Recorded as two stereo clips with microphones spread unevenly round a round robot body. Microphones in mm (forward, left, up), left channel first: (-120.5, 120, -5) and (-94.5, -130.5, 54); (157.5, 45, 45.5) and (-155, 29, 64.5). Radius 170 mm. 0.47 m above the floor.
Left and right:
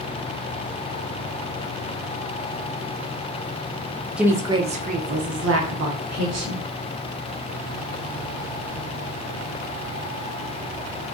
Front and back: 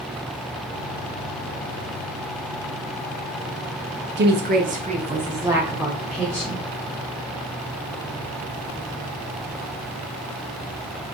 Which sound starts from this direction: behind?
A woman speaking, at 4.2 s.